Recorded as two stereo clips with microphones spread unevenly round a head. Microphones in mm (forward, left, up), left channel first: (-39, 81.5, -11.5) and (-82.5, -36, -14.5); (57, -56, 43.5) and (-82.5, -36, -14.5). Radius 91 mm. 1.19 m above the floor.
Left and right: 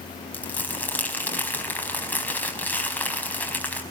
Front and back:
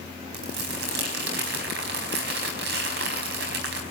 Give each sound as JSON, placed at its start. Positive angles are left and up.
{"t": 0.3, "sound": "crumpling", "azimuth_deg": 145, "distance_m": 4.5}